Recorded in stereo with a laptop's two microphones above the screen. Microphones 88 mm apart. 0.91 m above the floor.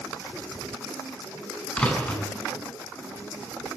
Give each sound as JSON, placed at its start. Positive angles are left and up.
{"t": 1.8, "sound": "a door slam", "side_deg": 15, "distance_m": 7.0}